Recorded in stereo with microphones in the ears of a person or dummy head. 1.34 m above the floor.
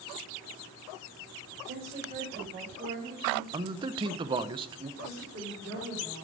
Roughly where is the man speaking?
Right.